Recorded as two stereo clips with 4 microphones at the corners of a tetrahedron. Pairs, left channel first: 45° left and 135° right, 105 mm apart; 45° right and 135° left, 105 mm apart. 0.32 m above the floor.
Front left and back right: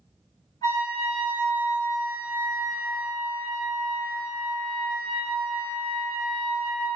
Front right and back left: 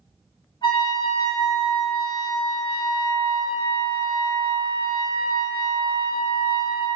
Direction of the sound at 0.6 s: Straight ahead.